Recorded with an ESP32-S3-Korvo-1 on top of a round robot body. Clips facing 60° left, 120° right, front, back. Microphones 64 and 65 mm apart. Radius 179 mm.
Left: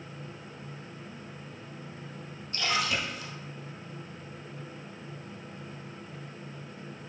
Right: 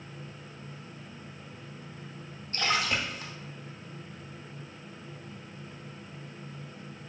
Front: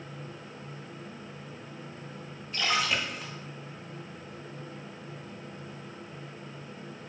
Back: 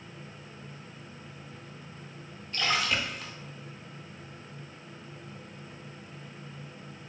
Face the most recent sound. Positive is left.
turn(degrees=-85)